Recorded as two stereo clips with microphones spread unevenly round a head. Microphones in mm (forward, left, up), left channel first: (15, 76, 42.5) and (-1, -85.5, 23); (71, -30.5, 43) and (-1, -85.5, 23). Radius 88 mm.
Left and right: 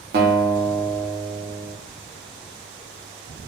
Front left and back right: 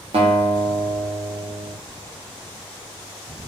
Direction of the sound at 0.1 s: 130° right.